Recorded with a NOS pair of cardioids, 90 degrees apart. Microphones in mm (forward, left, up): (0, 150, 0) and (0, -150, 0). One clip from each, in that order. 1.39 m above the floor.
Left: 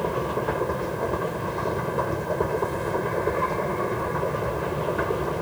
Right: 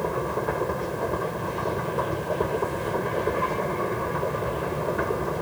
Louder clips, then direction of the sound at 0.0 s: Left 1 dB; 10° left.